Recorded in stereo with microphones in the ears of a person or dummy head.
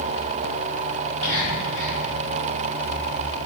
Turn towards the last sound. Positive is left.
turn(degrees=10)  # may be behind; listen again after turning